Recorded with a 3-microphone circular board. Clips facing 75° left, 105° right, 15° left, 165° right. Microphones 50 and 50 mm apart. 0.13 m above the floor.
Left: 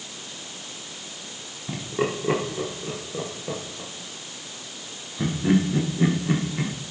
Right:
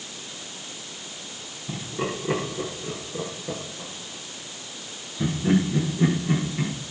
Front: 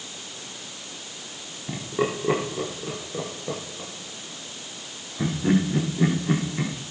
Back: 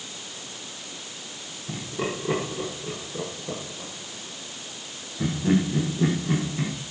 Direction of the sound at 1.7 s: 25° left.